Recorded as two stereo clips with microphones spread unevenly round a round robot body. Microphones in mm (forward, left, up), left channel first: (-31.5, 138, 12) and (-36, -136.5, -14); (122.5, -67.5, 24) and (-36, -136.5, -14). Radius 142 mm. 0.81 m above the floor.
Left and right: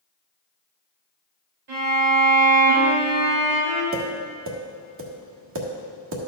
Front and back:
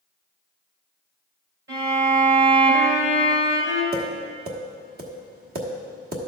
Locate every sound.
1.7 s a violin: 125° right, 3 m
3.9 s tapping: 135° right, 1.3 m